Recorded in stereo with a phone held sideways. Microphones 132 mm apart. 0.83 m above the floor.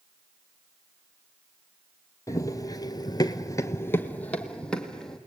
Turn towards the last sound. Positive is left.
turn(degrees=5)  # may be behind; listen again after turning